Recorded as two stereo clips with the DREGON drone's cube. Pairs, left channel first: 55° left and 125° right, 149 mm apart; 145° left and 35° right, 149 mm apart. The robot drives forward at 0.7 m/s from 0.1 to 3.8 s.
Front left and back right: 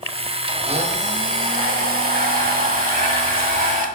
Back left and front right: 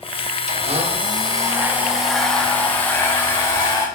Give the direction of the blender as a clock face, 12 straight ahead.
2 o'clock.